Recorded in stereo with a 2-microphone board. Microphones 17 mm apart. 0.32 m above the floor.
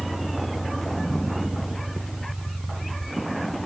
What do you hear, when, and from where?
0.0 s a vehicle: 5° right (ahead or behind); by 3.7 s centre (ahead or behind)